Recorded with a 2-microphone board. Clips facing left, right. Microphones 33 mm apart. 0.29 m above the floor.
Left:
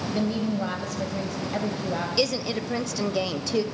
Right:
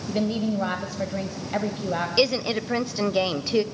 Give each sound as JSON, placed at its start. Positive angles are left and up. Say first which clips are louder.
{"t": 0.1, "sound": "a woman speaking", "louder": "right 2 dB", "side_deg": -25, "distance_m": 1.8}
{"t": 2.2, "sound": "a woman speaking", "louder": "right 4 dB", "side_deg": -25, "distance_m": 0.9}